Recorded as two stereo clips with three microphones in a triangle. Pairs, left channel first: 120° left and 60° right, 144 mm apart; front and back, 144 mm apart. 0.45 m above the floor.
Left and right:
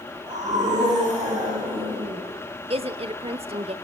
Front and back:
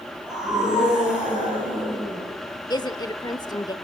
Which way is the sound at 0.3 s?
95° right.